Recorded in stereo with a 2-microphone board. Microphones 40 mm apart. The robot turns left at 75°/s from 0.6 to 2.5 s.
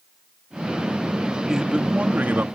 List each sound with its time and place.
1.5 s a man speaking: 15° right; by 2.5 s 85° right